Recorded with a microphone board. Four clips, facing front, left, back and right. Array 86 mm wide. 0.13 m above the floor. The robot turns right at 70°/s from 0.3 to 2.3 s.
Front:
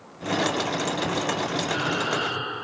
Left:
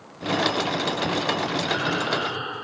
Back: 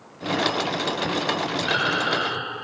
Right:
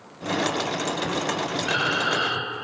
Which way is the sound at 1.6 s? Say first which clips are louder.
Right 1 dB, back 3 dB; 175° right.